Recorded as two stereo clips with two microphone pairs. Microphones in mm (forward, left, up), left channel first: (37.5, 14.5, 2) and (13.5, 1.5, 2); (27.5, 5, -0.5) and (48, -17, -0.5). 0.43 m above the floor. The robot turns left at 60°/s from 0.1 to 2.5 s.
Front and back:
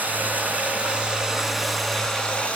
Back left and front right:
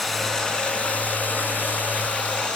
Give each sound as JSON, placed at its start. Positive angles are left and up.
{"t": 0.0, "sound": "running water", "azimuth_deg": -140, "distance_m": 2.5}